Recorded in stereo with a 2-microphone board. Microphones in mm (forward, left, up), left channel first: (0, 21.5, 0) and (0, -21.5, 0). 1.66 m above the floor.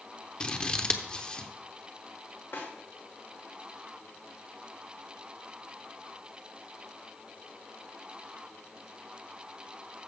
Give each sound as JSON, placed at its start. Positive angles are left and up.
{"t": 0.4, "sound": "scissors", "side_deg": 25, "distance_m": 0.8}
{"t": 2.5, "sound": "a snare drum", "side_deg": 65, "distance_m": 2.5}